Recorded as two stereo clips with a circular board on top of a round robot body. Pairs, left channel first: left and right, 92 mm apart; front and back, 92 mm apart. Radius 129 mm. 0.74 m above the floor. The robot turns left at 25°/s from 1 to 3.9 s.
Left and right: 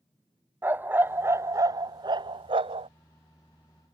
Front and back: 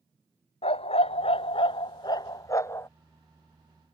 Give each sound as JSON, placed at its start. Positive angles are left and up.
{"t": 0.6, "sound": "a dog barking", "azimuth_deg": -20}